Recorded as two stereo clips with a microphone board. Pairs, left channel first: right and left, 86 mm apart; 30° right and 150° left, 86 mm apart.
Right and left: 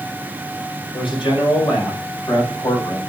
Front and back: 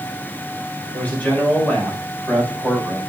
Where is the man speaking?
100° right, 4.5 m; by 3.0 s 110° right, 5 m.